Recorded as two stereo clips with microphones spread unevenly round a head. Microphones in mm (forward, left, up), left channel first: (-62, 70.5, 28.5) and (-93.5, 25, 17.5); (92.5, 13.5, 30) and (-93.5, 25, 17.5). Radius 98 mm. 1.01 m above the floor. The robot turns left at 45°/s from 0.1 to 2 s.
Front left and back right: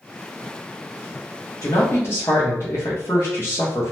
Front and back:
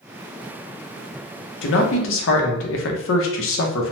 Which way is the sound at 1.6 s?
10° left.